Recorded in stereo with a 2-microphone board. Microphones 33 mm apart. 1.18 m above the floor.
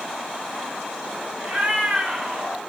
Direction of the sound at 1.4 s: 40° right (ahead or behind).